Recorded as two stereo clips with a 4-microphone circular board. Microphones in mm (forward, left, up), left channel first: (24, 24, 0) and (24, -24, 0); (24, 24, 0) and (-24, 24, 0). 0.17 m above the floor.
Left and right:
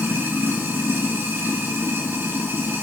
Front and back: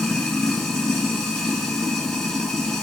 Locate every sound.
0.0 s running water: 75° right, 0.9 m